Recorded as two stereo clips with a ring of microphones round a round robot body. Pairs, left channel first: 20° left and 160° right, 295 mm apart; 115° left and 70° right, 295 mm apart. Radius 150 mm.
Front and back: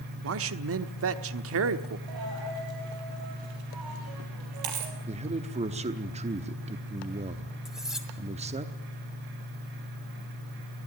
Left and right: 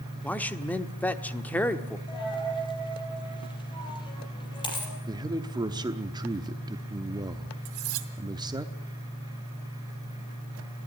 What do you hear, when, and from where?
0.2 s a man speaking: 165° right, 1.2 m
2.1 s a dropped coin: 170° right, 4 m
5.1 s a man speaking: 125° right, 0.9 m
7.7 s cutlery clinking: 70° right, 2.0 m